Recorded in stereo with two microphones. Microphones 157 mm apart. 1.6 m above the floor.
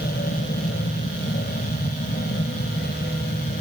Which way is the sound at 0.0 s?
80° left.